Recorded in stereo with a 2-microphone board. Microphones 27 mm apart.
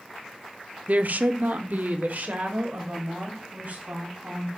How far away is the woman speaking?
About 0.6 m.